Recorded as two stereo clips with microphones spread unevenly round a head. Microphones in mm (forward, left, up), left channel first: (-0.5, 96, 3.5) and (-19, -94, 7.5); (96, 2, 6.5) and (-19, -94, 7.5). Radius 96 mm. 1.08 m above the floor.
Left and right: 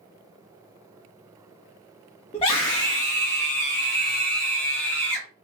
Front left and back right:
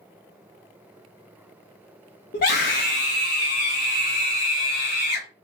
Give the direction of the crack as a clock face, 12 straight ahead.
I don't hear a crack.